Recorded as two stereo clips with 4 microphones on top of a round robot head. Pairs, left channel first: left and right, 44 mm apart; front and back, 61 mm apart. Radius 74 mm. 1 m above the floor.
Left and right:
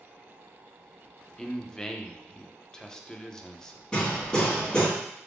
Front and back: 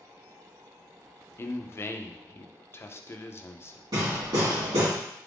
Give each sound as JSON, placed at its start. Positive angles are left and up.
{"t": 1.4, "sound": "a man speaking", "azimuth_deg": 20, "distance_m": 0.5}
{"t": 3.9, "sound": "hammering", "azimuth_deg": 165, "distance_m": 1.9}